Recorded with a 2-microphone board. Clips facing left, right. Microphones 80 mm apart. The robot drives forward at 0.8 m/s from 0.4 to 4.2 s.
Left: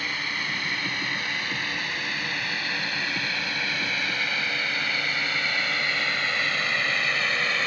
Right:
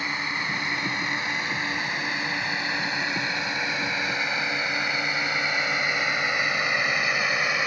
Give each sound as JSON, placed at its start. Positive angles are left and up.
{"t": 0.0, "sound": "a drone", "side_deg": -25}